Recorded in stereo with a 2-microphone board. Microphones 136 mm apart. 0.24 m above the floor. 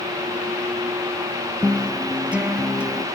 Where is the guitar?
10° right (ahead or behind), 1.7 m.